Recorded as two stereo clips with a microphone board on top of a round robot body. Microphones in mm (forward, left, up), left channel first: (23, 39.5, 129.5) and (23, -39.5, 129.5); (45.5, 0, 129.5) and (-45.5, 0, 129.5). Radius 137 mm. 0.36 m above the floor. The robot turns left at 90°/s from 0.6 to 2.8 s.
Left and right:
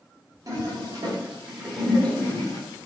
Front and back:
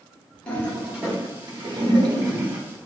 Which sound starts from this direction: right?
A toilet flushing, at 0.5 s.